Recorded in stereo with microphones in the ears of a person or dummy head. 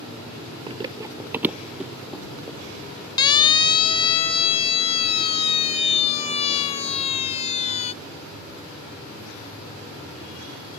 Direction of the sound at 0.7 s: 20° right (ahead or behind).